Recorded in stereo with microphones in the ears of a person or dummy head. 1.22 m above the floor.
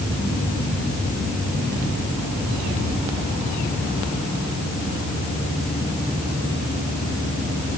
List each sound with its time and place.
Only background noise.